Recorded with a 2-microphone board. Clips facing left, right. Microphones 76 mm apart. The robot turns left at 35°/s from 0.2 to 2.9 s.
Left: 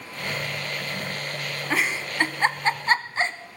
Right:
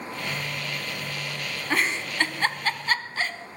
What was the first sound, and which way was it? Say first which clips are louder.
A giggle: even; centre (ahead or behind).